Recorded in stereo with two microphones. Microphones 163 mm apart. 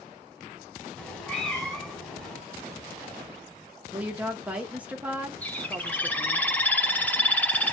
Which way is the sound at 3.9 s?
10° right (ahead or behind).